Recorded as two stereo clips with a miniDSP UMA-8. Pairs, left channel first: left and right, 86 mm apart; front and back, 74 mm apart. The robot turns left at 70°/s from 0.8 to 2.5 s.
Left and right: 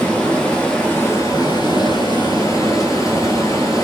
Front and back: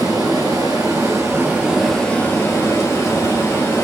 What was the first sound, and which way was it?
Running water, 165° left.